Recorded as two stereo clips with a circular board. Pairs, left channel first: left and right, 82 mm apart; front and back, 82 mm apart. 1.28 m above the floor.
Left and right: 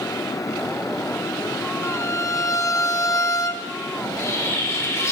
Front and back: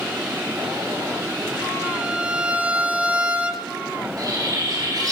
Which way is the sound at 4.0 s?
145° left.